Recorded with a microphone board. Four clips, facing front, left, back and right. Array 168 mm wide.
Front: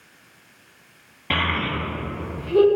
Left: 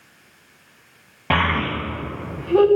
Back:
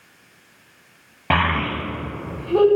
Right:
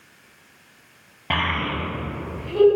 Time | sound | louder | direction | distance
1.3 | a child speaking | left 4 dB, back 4 dB | 155° left | 1.5 m